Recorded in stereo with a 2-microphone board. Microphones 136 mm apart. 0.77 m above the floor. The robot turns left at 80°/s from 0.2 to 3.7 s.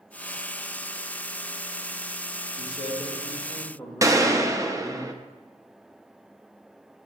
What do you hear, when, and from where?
2.6 s a man speaking: 100° left, 2.5 m; by 5.0 s 10° left, 2.5 m
4.0 s a gunshot: 25° right (ahead or behind), 0.6 m